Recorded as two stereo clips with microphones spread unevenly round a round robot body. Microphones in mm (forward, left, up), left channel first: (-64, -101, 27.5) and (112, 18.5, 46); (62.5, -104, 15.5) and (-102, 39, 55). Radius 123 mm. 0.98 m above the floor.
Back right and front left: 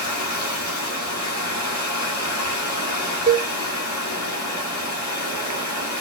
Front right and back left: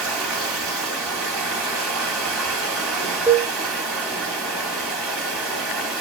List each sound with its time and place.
0.0 s running water: 135° right, 1.5 m
3.3 s a cowbell: 75° left, 0.5 m